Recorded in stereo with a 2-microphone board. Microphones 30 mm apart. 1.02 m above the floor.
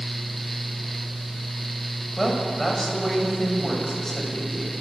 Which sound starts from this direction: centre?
A woman speaking, at 2.2 s.